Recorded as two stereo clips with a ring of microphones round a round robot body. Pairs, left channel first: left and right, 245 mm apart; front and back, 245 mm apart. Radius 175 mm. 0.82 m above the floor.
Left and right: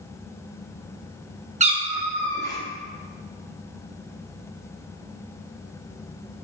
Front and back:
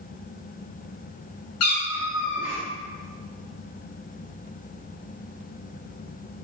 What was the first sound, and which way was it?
A cat meowing, 30° right.